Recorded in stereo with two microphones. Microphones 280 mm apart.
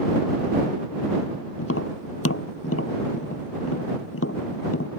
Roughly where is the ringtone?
I don't hear a ringtone.